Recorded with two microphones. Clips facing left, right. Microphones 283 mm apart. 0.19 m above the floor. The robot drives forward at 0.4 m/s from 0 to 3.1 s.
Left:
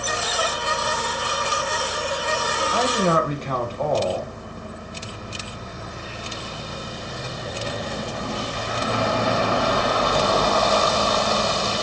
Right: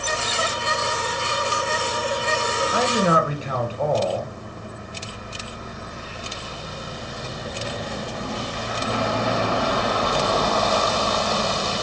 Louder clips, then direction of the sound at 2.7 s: Even; 10° right (ahead or behind).